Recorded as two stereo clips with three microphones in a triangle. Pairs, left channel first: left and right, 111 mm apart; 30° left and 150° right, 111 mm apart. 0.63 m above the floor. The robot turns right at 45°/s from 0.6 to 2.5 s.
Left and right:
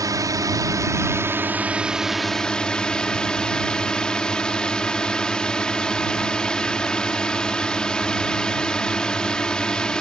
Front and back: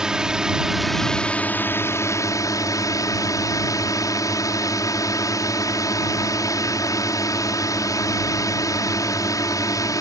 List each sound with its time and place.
0.0 s a drone: 70° right; by 10.0 s 15° left